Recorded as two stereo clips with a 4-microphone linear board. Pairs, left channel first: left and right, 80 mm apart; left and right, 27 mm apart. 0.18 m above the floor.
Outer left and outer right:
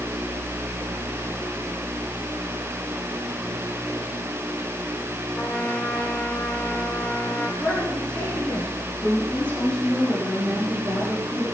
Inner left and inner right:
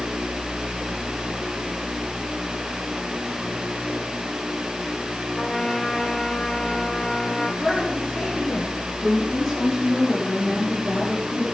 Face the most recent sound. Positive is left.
turn(degrees=15)  # may be behind; listen again after turning